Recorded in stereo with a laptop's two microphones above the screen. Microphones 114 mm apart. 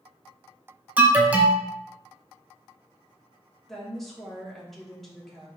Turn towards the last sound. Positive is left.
turn(degrees=0)  # may be behind; listen again after turning